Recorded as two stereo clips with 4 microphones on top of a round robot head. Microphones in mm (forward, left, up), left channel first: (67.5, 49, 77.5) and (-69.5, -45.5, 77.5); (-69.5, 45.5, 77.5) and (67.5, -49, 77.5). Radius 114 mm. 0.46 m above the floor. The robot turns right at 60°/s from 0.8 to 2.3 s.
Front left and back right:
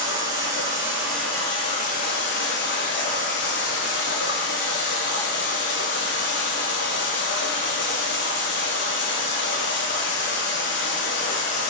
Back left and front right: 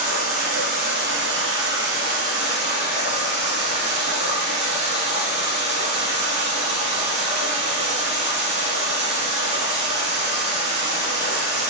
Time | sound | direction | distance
0.0 | running water | 75° right | 0.8 m